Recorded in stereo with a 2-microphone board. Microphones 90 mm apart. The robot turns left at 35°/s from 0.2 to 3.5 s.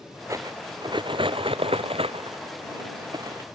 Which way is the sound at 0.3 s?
35° right (ahead or behind).